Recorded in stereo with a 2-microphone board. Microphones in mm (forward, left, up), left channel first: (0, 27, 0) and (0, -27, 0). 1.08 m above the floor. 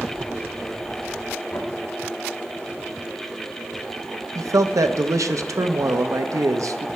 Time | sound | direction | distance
1.5 | knocking | 55° left (ahead or behind) | 1.4 m
4.3 | a man speaking | 75° right (ahead or behind) | 0.6 m